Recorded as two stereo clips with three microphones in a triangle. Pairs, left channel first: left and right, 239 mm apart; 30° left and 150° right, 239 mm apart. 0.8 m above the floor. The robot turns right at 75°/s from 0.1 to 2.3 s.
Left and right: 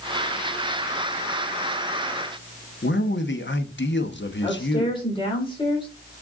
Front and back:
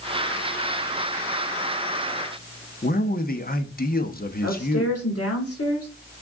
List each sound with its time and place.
2.8 s a man speaking: 70° left, 1.0 m
4.4 s a woman speaking: 20° left, 3 m